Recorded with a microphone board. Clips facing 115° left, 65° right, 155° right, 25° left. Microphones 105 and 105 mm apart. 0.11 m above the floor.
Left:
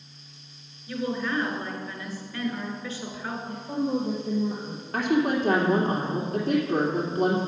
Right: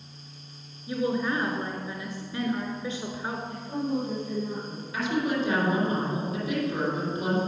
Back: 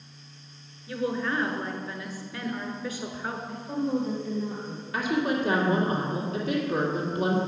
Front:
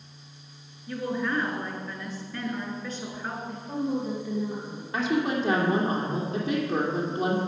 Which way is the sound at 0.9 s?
90° right.